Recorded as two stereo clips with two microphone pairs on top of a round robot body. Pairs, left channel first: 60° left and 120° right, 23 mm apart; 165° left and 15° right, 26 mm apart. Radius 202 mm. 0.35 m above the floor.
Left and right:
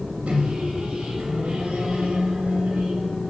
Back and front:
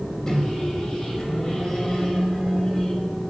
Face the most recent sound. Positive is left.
turn(degrees=-135)